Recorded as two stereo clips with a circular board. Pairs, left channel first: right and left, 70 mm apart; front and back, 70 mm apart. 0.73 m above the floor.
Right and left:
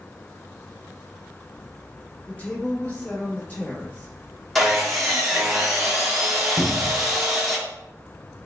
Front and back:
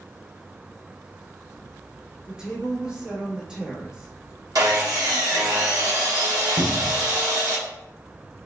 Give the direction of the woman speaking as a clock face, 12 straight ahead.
4 o'clock.